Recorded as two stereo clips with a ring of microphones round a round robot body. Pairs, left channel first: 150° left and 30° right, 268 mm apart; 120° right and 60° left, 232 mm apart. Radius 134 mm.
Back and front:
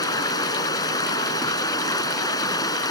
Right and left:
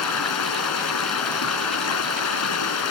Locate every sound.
0.0 s running water: 135° right